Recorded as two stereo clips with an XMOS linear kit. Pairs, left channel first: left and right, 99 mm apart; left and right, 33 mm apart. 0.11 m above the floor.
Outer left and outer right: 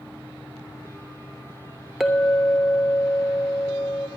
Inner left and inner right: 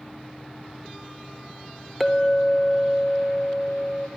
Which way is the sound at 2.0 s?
5° right (ahead or behind).